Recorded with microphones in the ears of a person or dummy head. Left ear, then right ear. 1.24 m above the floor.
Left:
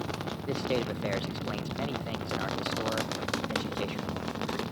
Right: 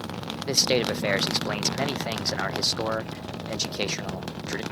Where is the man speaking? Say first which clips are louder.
Right 9 dB; 80° right, 0.6 m.